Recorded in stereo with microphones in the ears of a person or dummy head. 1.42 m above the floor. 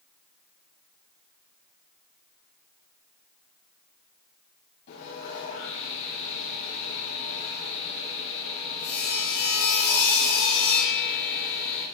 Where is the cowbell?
I don't hear a cowbell.